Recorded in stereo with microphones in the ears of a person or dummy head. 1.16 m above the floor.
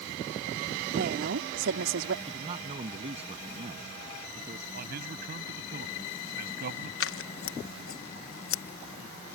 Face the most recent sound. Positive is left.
turn(degrees=65)  # may be behind; listen again after turning